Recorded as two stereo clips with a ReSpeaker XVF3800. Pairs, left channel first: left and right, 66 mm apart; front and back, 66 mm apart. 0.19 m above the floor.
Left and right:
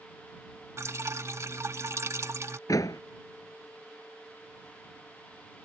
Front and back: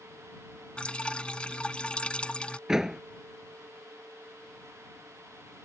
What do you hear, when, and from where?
0.8 s dripping: 70° right
2.7 s a door slam: 100° left